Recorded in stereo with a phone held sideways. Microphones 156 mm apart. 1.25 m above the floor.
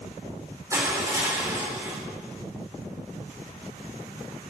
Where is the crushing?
20° right (ahead or behind), 4 m.